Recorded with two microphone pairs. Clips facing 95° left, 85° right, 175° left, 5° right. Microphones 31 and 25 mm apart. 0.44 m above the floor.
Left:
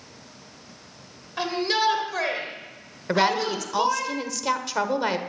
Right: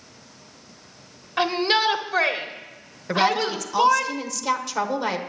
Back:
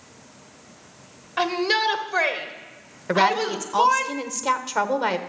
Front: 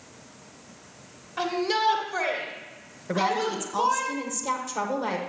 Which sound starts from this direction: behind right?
A shout, at 1.4 s.